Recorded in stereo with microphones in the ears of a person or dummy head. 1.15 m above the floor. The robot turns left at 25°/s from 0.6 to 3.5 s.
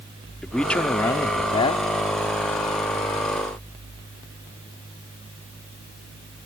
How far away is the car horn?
No car horn in this recording.